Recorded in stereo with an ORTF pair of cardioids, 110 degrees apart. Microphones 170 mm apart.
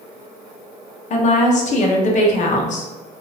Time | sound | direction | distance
1.1 | a woman speaking | 45° left | 0.8 m